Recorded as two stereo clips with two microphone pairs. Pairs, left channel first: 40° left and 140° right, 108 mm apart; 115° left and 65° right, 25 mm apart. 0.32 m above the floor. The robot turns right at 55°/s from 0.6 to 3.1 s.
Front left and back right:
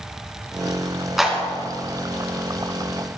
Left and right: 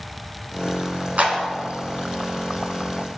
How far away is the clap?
About 3 m.